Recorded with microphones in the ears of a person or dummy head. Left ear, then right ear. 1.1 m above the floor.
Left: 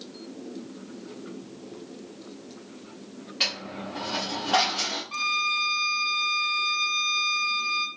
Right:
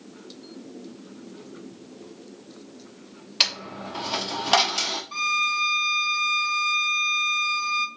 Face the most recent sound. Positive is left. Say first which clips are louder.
# right 2 dB
turn(degrees=-5)  # may be behind; listen again after turning